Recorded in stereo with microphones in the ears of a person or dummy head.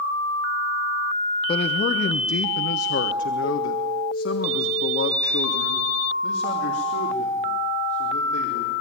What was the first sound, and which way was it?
A man speaking, 35° left (ahead or behind).